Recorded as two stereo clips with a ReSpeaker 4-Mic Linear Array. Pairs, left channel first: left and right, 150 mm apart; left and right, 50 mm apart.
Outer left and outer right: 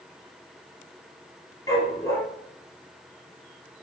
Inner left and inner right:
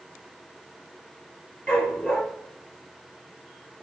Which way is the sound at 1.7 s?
20° left (ahead or behind).